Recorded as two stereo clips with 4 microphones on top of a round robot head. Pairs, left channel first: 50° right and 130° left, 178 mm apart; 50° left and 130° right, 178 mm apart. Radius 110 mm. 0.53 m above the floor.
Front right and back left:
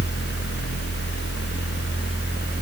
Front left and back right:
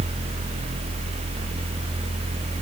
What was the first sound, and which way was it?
Only background noise.